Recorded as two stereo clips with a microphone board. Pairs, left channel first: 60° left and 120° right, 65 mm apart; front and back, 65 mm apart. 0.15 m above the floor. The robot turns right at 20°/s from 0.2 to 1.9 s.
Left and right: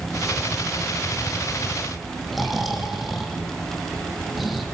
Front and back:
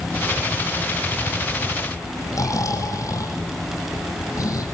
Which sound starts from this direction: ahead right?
Snoring, at 2.3 s.